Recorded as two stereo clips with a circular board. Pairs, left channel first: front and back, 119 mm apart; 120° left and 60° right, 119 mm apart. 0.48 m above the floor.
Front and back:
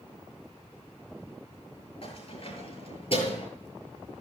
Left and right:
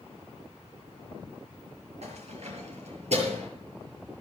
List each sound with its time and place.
2.0 s keys jangling: 35° right, 7 m